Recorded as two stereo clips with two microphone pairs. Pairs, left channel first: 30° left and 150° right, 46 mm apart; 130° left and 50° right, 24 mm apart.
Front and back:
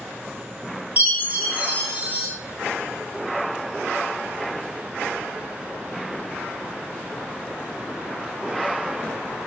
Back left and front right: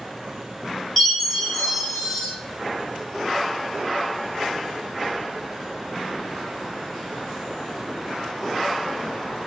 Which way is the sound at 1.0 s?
170° right.